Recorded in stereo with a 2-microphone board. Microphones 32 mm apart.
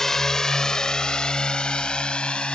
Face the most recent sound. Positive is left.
turn(degrees=30)  # may be behind; listen again after turning